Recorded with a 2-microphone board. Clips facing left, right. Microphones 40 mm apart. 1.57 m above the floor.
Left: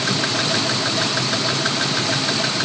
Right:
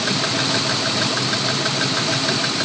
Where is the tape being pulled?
No tape being pulled in this recording.